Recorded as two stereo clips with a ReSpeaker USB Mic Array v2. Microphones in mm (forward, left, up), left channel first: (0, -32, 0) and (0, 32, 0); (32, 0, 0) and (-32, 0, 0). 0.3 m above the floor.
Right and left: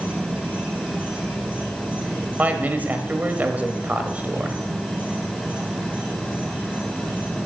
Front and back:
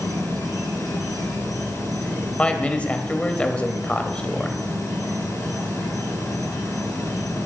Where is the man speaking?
55° left, 1.0 m.